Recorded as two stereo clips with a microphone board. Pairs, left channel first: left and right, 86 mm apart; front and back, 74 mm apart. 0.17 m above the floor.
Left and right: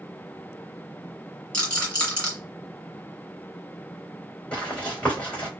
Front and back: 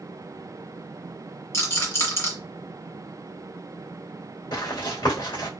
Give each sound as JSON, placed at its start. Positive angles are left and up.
{"t": 1.5, "sound": "a rattle", "azimuth_deg": 20, "distance_m": 2.0}
{"t": 4.5, "sound": "running footsteps", "azimuth_deg": 15, "distance_m": 2.0}